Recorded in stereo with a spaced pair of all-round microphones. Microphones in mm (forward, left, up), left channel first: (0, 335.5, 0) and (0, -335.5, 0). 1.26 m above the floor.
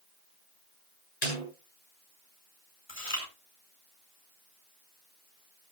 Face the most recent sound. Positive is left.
turn(degrees=65)  # may be behind; listen again after turning